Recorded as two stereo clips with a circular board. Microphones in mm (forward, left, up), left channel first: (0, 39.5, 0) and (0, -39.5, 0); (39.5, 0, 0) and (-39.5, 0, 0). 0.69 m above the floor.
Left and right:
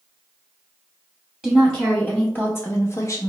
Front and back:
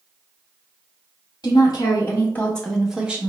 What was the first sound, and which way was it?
A woman speaking, 5° left.